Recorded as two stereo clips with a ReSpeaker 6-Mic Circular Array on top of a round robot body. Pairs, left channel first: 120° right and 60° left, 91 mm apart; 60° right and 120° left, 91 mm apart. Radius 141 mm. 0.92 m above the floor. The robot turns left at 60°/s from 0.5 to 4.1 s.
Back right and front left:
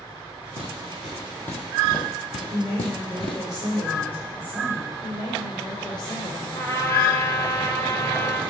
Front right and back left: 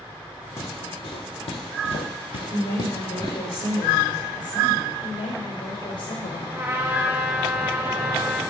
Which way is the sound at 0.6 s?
Straight ahead.